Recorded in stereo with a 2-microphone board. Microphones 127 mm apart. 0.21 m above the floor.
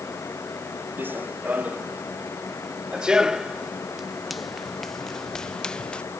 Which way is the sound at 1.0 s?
15° right (ahead or behind).